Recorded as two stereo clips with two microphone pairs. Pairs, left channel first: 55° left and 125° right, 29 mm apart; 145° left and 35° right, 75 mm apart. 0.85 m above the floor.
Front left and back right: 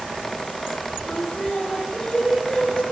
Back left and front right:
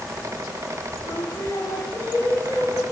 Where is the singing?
125° left, 7 m.